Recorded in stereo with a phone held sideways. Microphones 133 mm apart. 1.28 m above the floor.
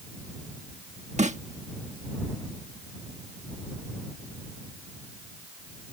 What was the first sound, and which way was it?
A snare drum, 60° right (ahead or behind).